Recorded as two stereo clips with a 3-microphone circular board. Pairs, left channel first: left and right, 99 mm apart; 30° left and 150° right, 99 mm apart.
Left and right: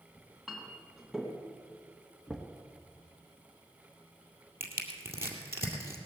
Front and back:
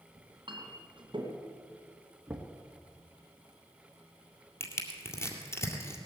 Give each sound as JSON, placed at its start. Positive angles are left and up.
{"t": 0.2, "sound": "a clink", "azimuth_deg": 180, "distance_m": 2.5}
{"t": 2.3, "sound": "knocking", "azimuth_deg": 165, "distance_m": 1.3}
{"t": 4.6, "sound": "crushing", "azimuth_deg": -30, "distance_m": 2.0}